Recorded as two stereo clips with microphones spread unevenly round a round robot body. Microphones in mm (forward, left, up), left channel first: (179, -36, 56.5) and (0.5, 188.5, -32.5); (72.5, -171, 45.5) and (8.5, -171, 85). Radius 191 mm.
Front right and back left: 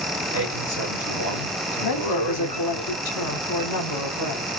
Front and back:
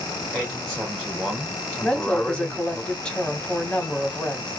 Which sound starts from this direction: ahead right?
A woman speaking, at 1.8 s.